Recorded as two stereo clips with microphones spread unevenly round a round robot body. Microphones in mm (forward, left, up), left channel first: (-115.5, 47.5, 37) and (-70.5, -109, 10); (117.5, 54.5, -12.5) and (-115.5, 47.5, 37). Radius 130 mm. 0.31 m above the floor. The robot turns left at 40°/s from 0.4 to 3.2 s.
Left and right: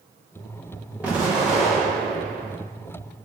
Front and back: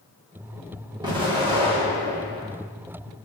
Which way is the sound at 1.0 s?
105° right.